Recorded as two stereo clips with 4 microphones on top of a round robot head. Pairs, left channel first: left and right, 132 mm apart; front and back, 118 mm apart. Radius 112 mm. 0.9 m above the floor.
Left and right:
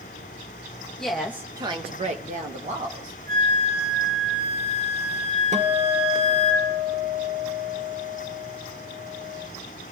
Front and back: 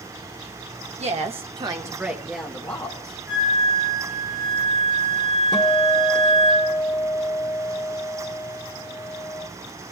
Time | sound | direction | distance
1.0 | a woman speaking | 175° left | 1.2 m
3.3 | a flute | 90° right | 6.5 m
5.5 | a guitar | 60° right | 1.2 m